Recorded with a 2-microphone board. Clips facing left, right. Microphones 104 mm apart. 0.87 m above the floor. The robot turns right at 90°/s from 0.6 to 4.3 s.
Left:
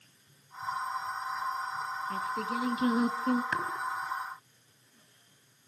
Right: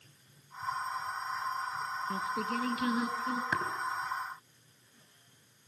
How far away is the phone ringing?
I don't hear a phone ringing.